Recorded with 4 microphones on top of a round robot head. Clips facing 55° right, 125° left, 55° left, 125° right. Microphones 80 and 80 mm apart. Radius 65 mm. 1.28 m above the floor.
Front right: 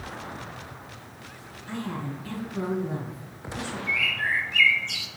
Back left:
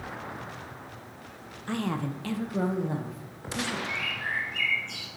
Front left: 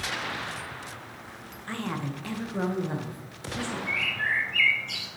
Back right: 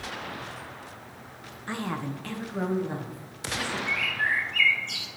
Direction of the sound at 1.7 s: 160° left.